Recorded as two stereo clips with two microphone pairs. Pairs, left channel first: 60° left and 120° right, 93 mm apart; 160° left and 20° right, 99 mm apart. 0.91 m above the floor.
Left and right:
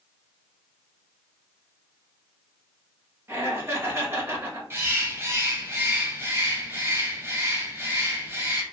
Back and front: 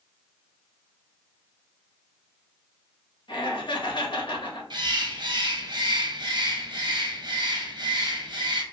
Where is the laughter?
Straight behind, 0.9 m.